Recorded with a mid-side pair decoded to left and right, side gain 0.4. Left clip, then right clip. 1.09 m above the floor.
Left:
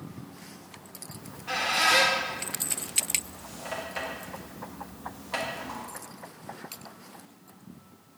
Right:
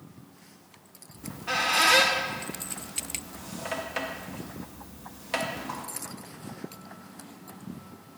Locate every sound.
1.2 s a squeak: 40° right, 0.9 m